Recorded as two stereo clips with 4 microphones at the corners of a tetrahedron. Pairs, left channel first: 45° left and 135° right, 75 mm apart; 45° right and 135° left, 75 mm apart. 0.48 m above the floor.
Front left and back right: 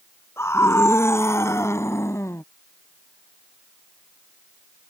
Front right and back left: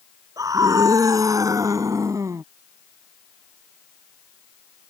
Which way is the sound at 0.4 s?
100° left.